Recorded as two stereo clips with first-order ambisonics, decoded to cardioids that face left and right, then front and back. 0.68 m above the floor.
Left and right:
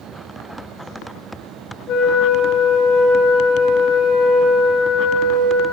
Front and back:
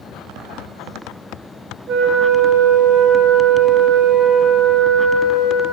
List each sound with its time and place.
1.9 s a flute: 135° left, 0.5 m